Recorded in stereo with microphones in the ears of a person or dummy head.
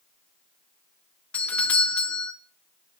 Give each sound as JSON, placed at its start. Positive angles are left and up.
{"t": 1.3, "sound": "a doorbell", "side_deg": 15, "distance_m": 0.7}